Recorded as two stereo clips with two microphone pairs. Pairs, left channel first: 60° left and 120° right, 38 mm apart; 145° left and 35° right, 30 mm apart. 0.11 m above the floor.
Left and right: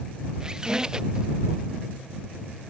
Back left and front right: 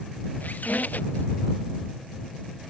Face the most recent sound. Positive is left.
turn(degrees=170)